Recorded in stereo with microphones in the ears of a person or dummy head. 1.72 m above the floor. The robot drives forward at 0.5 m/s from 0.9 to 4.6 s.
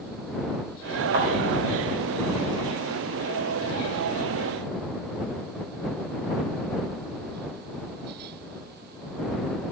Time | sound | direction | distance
1.1 | a thud | 50° right (ahead or behind) | 4 m